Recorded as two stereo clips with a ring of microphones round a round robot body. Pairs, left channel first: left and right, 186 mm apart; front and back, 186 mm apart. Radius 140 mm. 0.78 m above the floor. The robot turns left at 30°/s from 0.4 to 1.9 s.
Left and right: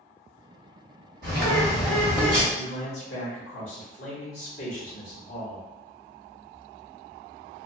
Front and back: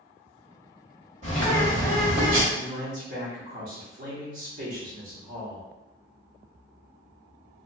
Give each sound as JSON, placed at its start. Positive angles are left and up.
{"t": 1.2, "sound": "a bird", "azimuth_deg": -120, "distance_m": 1.3}
{"t": 2.5, "sound": "a man speaking", "azimuth_deg": 150, "distance_m": 1.1}